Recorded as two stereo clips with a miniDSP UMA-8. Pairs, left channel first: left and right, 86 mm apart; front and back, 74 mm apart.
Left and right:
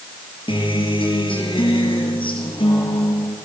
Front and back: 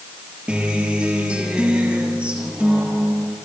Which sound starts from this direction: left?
A guitar, at 0.5 s.